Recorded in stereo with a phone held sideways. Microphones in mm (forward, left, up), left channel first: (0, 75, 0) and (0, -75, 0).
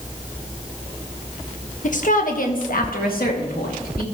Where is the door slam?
I don't hear a door slam.